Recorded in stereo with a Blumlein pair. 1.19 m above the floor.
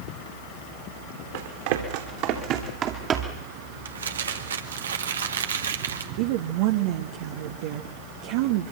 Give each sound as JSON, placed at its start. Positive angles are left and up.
{"t": 1.3, "sound": "running footsteps", "azimuth_deg": -55, "distance_m": 4.0}
{"t": 3.9, "sound": "crumpling", "azimuth_deg": -65, "distance_m": 2.0}
{"t": 6.2, "sound": "a woman speaking", "azimuth_deg": -50, "distance_m": 1.6}